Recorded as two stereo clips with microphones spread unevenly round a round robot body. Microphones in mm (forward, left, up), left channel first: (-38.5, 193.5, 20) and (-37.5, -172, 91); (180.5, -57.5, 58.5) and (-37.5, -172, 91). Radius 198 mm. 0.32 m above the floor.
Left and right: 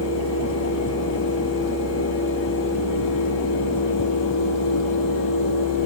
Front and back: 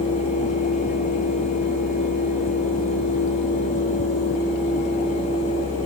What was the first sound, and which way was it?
Only background noise.